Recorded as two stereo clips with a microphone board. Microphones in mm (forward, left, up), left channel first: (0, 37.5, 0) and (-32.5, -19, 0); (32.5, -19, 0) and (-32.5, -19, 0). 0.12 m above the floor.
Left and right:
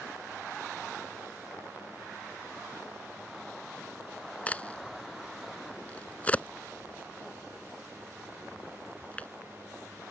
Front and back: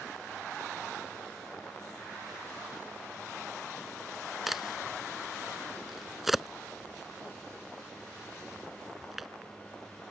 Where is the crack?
100° left.